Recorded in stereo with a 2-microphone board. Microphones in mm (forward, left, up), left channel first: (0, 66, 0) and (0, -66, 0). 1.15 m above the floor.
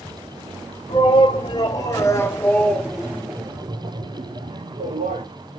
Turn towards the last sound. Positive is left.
turn(degrees=-70)  # may be behind; listen again after turning